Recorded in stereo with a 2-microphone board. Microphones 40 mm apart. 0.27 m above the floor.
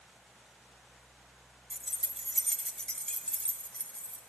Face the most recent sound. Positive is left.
turn(degrees=35)  # may be behind; listen again after turning